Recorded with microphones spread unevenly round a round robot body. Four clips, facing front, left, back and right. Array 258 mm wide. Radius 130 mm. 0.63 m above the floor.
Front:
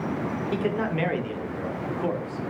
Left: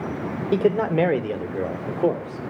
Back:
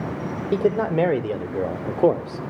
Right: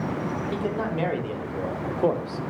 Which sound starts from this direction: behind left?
A man speaking, at 0.5 s.